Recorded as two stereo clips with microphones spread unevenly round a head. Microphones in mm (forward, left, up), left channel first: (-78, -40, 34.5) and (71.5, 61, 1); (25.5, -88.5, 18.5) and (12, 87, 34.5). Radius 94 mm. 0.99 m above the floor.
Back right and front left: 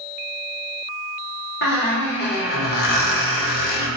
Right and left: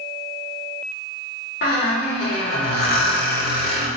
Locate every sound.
1.6 s a squeak: 130° right, 1.0 m